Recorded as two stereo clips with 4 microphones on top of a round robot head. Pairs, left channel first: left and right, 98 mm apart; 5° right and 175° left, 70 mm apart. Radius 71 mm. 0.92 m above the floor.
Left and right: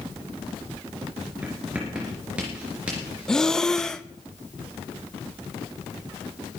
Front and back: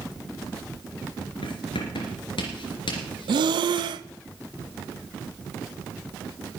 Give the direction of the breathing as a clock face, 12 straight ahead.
6 o'clock.